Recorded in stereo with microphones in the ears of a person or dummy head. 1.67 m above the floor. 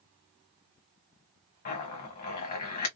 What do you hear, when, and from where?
1.6 s a zipper: 45° left (ahead or behind), 1.1 m